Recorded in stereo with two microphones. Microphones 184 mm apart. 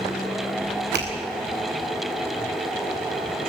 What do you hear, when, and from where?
0.9 s a finger snap: 70° right (ahead or behind), 4.5 m